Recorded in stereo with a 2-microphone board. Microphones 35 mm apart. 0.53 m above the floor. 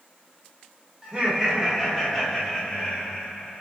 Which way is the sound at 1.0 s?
25° right (ahead or behind).